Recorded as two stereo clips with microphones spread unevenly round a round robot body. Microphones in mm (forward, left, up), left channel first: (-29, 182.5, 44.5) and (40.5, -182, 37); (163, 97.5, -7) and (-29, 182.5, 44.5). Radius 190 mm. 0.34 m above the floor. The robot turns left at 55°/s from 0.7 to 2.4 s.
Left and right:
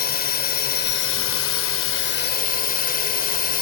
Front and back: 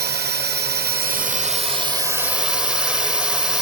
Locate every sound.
0.0 s a drone: 145° left; by 3.6 s 50° left